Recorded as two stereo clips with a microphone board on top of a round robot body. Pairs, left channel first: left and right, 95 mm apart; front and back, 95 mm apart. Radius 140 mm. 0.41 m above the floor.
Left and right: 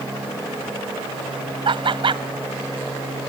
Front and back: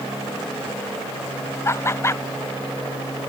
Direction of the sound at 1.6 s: 65° right.